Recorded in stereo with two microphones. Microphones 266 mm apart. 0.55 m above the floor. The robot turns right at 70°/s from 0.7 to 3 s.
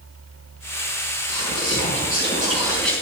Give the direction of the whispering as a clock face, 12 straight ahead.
4 o'clock.